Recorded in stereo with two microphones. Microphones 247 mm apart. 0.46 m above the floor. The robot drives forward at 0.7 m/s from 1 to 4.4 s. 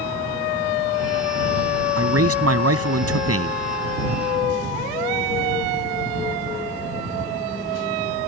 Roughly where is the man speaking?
Right.